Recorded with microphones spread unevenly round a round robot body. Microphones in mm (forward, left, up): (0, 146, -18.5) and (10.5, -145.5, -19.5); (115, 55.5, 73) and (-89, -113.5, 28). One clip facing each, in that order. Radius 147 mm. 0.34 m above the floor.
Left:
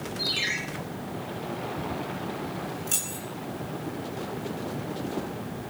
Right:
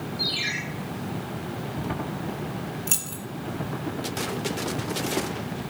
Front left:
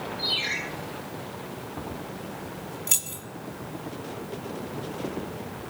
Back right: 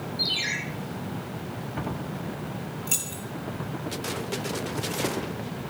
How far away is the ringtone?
About 7 m.